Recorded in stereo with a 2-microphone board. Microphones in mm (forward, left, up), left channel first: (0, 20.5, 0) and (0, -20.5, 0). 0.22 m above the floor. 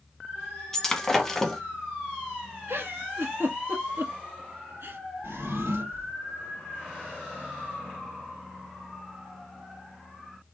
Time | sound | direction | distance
0.7 | breaking glass | 10° left (ahead or behind) | 1.1 m
2.7 | a giggle | 65° right (ahead or behind) | 1.5 m
5.2 | a drawer | 85° right | 1.2 m